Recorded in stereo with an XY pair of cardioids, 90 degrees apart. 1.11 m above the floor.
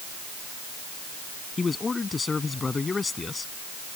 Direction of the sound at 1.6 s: 35° left.